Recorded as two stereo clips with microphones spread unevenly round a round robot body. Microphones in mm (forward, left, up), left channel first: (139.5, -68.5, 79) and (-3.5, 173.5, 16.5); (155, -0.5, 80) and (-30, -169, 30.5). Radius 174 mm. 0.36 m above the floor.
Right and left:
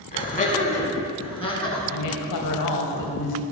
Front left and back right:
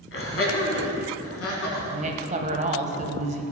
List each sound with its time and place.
0.1 s laughter: 5° left, 4 m; by 1.8 s 20° left, 5 m
1.9 s a woman speaking: 85° right, 2.5 m